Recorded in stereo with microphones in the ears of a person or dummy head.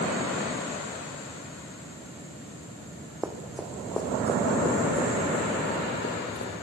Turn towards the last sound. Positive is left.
turn(degrees=45)  # may be behind; listen again after turning